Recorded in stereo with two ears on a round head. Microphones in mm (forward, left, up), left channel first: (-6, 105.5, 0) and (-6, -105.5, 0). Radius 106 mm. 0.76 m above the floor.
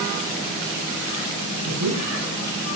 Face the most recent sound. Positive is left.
turn(degrees=-80)